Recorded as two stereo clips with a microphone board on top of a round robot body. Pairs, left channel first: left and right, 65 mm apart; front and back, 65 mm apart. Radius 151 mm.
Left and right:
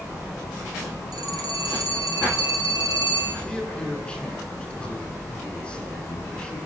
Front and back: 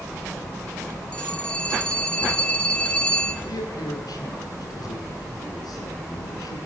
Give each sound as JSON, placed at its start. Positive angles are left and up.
{"t": 1.1, "sound": "a phone ringing", "azimuth_deg": -70, "distance_m": 7.5}
{"t": 3.5, "sound": "a man speaking", "azimuth_deg": 15, "distance_m": 9.0}